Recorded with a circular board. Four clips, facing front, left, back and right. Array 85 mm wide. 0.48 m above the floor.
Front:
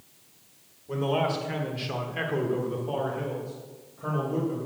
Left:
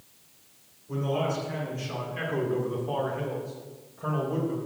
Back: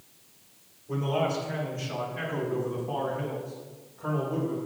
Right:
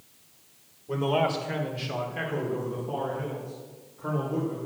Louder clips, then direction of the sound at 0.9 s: Right 3 dB, front 1 dB; 65° right.